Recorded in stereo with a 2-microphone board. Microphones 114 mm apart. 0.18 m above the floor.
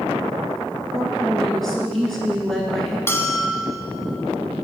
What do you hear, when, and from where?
0.9 s a woman speaking: centre (ahead or behind), 2.0 m
3.1 s a bell: 25° left (ahead or behind), 0.9 m